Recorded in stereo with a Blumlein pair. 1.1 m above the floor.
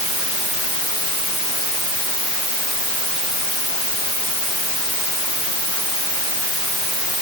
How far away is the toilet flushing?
I don't hear a toilet flushing.